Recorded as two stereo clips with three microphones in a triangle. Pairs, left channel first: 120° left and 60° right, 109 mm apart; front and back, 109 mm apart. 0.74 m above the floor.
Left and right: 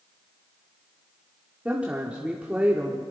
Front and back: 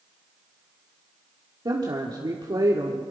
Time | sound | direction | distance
1.6 | a woman speaking | 135° right | 1.9 m